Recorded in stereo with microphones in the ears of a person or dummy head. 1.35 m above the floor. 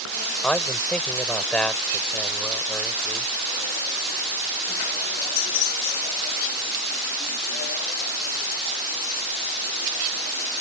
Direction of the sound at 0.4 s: 5° left (ahead or behind).